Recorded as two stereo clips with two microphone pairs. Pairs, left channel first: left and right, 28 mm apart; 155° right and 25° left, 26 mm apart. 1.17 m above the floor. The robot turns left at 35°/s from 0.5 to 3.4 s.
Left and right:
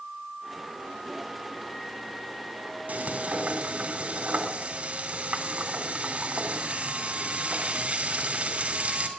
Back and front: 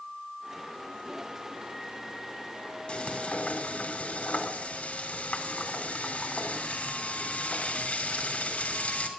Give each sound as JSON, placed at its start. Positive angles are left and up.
{"t": 2.9, "sound": "frying", "azimuth_deg": -105, "distance_m": 2.5}